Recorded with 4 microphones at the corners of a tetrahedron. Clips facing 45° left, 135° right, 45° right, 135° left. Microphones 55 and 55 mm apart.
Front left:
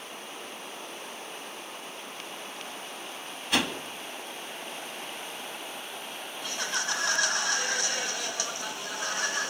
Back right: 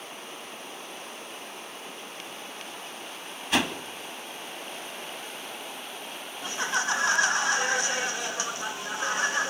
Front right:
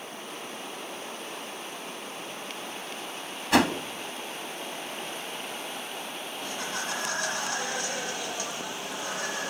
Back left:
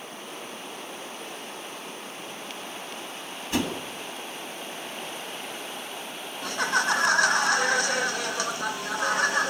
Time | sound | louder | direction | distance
3.5 | a whoosh | back right 2 dB, front right 6 dB | 45° right | 2 m
6.4 | laughter | back right 5 dB, back left 10 dB | 145° left | 2 m